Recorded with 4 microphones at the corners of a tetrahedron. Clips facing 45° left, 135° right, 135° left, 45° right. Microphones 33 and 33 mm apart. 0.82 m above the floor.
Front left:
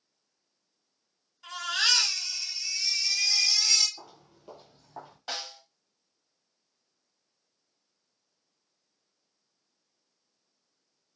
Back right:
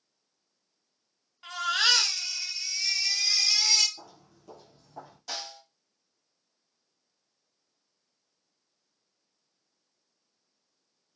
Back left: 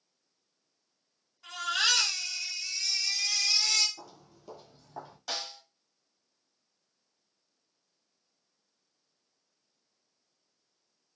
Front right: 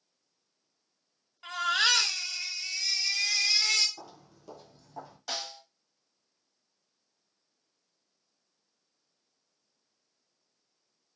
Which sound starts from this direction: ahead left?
A snare drum, at 5.3 s.